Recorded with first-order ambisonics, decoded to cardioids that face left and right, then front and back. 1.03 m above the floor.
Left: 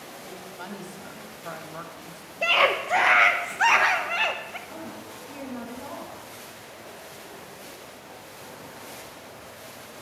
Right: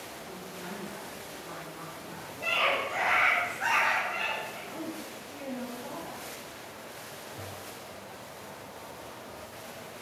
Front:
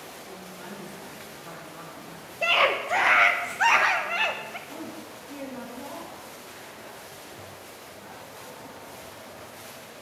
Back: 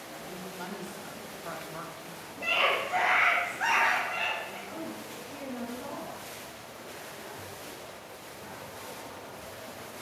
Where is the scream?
55° left, 0.6 m.